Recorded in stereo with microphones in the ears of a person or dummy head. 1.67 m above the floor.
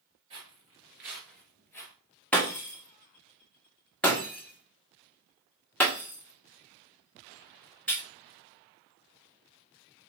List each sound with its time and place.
0.3 s footsteps: 35° right (ahead or behind), 2 m; by 1.9 s 10° left (ahead or behind), 2 m
2.3 s breaking glass: 5° left (ahead or behind), 1.5 m